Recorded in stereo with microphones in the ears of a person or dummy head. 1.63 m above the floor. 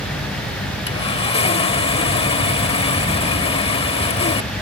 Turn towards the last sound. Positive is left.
turn(degrees=30)  # may be behind; listen again after turning